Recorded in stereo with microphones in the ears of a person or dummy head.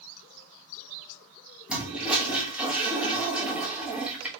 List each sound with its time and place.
1.7 s a toilet flushing: 5° right (ahead or behind), 1.1 m